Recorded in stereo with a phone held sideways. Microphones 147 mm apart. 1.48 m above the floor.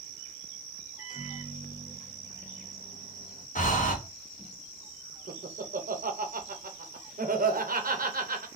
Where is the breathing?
60° left (ahead or behind), 0.8 m.